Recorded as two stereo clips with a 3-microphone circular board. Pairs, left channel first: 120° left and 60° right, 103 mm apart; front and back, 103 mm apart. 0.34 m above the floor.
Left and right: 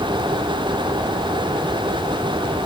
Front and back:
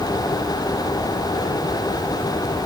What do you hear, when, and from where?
Only background noise.